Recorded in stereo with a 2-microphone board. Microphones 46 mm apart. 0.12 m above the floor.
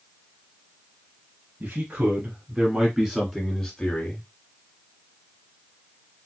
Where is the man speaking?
45° right (ahead or behind), 2.5 m; by 4.2 s 20° left (ahead or behind), 2 m.